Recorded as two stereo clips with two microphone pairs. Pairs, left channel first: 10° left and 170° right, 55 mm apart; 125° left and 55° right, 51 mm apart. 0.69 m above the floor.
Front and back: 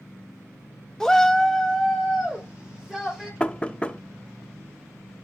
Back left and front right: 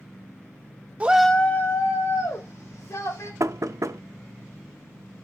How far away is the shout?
About 0.6 m.